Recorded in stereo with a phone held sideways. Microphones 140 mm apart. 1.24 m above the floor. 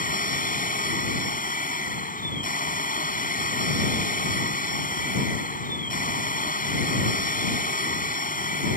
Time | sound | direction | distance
0.0 | a machine running | 80° left | ?